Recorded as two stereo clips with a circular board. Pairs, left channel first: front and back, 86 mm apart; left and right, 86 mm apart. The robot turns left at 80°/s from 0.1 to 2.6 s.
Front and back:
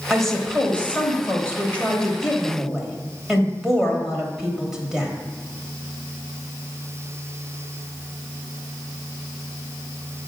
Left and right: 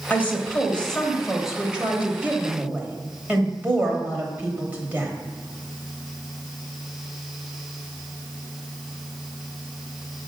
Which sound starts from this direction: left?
A woman speaking, at 0.1 s.